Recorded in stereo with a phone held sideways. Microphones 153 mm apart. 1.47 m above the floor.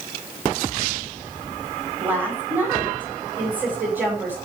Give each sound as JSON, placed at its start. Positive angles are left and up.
{"t": 2.0, "sound": "a woman speaking", "side_deg": -15, "distance_m": 5.5}